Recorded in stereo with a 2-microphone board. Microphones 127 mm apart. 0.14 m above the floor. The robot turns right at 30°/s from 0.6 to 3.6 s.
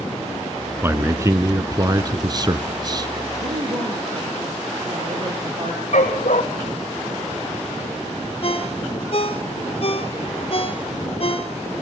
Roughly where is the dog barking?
Left.